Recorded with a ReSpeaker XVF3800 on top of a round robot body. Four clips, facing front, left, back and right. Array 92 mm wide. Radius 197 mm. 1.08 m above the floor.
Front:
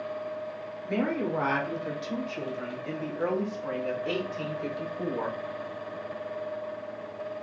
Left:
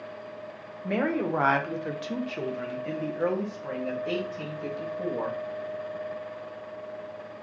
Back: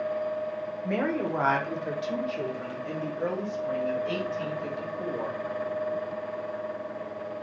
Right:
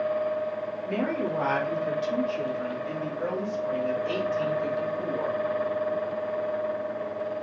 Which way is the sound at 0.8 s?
120° left.